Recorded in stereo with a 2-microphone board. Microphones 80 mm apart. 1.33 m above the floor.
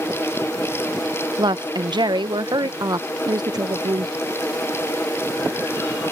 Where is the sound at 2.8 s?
55° right (ahead or behind).